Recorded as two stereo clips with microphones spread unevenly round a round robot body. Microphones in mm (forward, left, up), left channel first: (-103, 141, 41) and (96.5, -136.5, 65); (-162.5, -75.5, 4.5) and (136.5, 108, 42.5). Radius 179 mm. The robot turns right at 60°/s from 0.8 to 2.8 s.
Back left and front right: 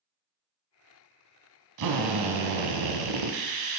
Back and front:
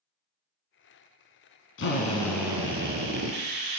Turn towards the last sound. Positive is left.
turn(degrees=-35)